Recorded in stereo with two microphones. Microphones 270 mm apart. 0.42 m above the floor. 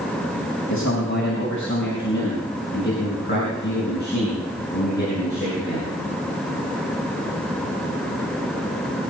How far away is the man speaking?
About 3.5 m.